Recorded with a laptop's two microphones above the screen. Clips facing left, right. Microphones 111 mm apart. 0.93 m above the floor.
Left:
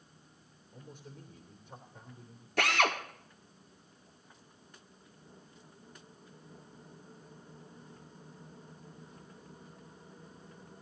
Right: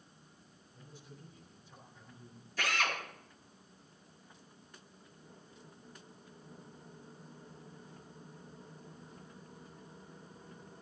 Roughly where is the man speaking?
Left.